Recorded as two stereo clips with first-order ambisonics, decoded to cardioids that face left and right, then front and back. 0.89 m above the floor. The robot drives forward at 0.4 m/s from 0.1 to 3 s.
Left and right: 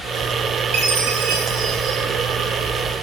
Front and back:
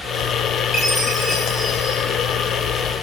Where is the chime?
75° right, 0.6 m; by 2.0 s 120° right, 0.7 m.